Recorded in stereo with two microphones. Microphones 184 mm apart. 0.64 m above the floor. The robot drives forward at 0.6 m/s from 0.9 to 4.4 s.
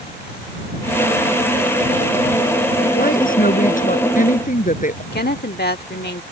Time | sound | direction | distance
3.0 | a woman speaking | 50° left (ahead or behind) | ?
5.1 | a woman speaking | 60° left (ahead or behind) | ?